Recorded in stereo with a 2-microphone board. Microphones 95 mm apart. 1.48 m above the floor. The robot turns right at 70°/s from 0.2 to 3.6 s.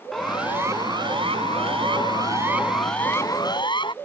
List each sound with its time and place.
0.1 s a siren: 5° left (ahead or behind); by 4.0 s 55° left (ahead or behind)